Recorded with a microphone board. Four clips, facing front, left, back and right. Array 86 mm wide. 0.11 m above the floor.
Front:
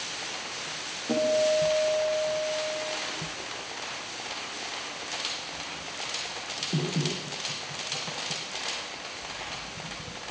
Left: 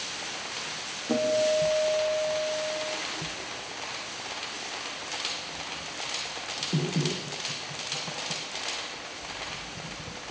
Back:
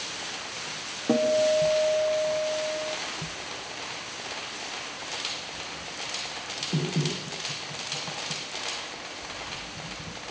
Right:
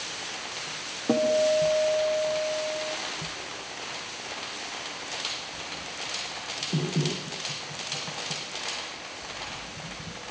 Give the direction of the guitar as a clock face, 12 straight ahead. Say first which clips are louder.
Right 2 dB, back 2 dB; 4 o'clock.